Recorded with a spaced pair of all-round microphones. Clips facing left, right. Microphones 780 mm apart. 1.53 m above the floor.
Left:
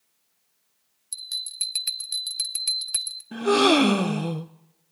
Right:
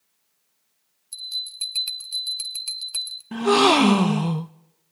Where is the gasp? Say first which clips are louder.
Right 1 dB; 40° right (ahead or behind), 0.5 m.